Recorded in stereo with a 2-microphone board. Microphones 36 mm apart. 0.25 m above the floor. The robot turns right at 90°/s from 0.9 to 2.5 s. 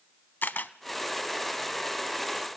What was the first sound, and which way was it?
A camera shutter, 65° left (ahead or behind).